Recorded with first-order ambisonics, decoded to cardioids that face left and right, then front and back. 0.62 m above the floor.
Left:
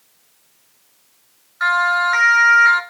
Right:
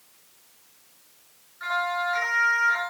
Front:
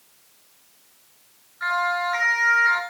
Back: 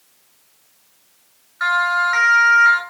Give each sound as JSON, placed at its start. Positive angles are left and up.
{"t": 1.6, "sound": "a siren", "azimuth_deg": 130, "distance_m": 7.5}